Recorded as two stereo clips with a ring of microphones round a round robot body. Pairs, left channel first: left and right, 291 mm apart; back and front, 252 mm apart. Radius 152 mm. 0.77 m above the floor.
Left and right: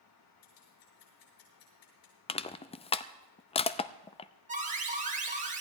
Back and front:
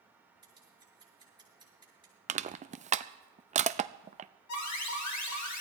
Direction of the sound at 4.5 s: 155° right.